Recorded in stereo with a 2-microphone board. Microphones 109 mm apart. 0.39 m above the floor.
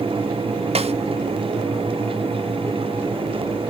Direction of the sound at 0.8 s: 75° right (ahead or behind).